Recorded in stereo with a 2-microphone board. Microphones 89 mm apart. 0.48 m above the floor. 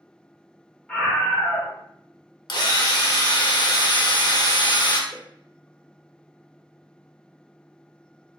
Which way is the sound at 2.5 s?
50° left (ahead or behind).